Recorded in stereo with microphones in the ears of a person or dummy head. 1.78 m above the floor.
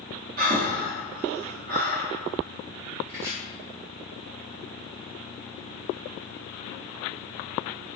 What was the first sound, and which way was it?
Breathing, 50° right (ahead or behind).